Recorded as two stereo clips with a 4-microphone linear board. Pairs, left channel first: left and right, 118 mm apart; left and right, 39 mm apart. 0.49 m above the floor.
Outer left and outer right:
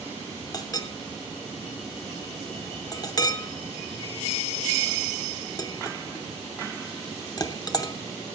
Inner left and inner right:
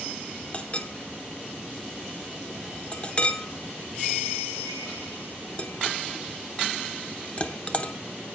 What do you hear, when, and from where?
0.5 s a clink: 30° left (ahead or behind), 0.8 m